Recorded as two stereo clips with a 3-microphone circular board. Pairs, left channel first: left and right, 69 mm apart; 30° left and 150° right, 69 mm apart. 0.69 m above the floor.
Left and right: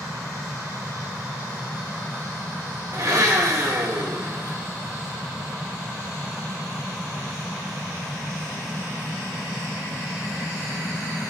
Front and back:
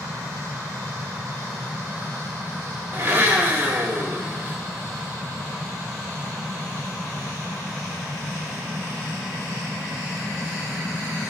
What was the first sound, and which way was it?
A blender, 100° right.